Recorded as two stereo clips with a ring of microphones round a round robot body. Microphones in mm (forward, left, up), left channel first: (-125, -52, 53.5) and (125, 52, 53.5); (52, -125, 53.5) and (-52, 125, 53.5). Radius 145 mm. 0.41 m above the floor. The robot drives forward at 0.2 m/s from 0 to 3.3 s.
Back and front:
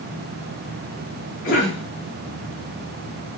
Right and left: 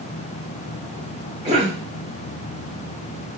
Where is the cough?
170° left, 1.7 m; by 1.8 s 175° left, 1.7 m.